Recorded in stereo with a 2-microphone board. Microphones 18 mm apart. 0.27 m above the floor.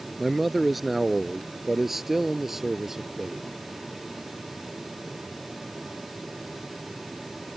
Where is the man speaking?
Centre (ahead or behind); by 3.4 s 20° right (ahead or behind).